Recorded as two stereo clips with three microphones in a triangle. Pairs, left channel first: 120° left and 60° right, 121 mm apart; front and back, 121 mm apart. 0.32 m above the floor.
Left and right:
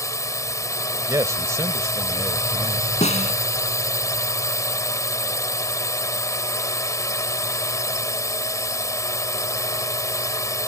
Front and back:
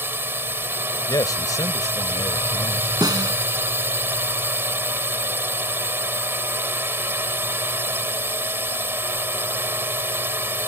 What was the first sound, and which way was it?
A drone, 130° left.